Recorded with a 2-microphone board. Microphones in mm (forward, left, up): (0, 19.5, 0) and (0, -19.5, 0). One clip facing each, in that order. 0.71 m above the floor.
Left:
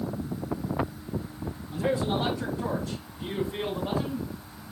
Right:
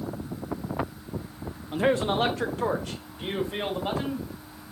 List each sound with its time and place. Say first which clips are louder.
1.7 s a man speaking: right 4 dB; 60° right (ahead or behind), 0.9 m